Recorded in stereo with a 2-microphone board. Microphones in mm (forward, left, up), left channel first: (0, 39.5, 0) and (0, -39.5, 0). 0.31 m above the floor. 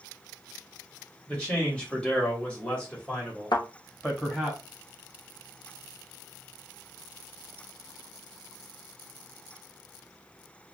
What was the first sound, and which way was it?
A man speaking, 15° left (ahead or behind).